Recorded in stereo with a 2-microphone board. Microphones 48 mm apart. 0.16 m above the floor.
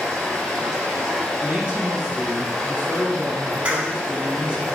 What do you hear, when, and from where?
0.0 s running water: 10° left (ahead or behind), 1.6 m
1.4 s a man speaking: 20° right (ahead or behind), 1.1 m
3.6 s a clap: 25° right (ahead or behind), 0.9 m